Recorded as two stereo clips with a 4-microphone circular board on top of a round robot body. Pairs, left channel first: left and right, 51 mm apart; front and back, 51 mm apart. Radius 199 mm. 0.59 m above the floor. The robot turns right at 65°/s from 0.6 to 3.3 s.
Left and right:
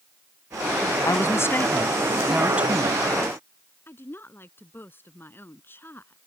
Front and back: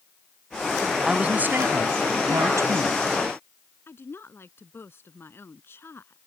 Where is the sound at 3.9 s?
40° left.